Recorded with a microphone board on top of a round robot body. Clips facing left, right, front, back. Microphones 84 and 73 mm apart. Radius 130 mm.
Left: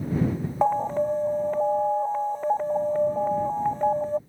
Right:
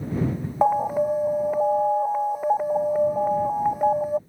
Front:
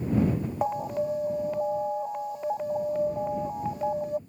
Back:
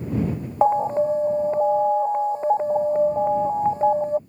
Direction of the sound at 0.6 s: 165° right.